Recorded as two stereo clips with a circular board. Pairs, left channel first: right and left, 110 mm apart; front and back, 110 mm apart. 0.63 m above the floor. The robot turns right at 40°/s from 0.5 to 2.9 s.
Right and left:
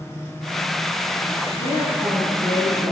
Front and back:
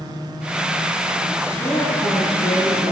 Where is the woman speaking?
75° right, 10 m; by 2.9 s 25° right, 10 m.